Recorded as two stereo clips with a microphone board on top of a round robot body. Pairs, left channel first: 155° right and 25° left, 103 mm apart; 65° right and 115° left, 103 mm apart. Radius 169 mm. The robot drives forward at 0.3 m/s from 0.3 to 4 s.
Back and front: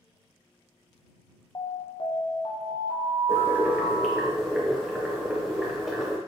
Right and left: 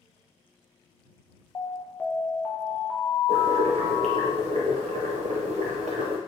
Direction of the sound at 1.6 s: 120° right.